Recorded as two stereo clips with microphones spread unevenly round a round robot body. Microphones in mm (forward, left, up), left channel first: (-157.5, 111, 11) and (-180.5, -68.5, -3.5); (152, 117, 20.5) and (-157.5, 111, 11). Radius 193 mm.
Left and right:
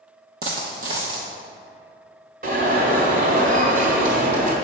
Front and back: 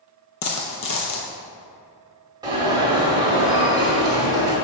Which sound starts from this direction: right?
An alarm, at 2.4 s.